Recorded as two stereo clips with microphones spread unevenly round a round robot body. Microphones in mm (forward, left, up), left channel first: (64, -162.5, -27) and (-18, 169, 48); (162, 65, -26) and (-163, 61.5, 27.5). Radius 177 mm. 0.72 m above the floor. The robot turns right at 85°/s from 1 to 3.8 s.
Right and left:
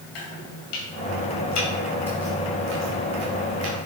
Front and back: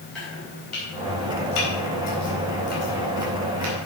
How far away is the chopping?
About 3.5 m.